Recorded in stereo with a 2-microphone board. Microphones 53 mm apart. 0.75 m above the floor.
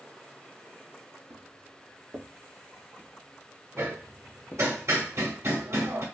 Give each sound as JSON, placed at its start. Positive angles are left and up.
{"t": 1.3, "sound": "footsteps", "side_deg": -60, "distance_m": 1.3}
{"t": 3.8, "sound": "hammering", "side_deg": -65, "distance_m": 1.0}